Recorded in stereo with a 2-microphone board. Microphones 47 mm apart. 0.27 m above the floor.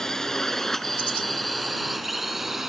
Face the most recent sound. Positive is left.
turn(degrees=-5)  # may be behind; listen again after turning